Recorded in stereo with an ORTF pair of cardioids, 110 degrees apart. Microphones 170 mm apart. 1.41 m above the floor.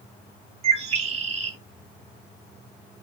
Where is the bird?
40° right, 1.5 m.